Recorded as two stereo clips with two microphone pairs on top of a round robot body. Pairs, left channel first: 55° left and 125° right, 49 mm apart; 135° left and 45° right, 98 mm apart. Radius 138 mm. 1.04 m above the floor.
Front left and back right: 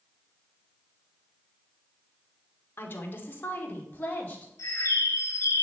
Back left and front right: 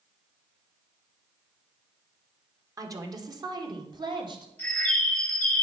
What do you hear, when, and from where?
2.8 s a woman speaking: 10° left, 1.5 m; by 4.5 s 5° right, 2 m
4.6 s a bird: 60° left, 0.7 m